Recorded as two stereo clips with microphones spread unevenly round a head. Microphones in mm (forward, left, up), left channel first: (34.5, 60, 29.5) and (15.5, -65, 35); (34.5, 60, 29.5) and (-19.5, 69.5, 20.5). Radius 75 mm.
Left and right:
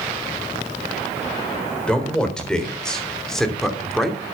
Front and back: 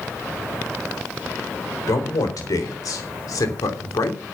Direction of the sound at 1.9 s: Straight ahead.